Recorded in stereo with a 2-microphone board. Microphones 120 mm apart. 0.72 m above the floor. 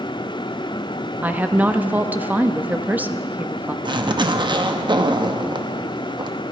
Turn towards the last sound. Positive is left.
turn(degrees=-40)  # may be behind; listen again after turning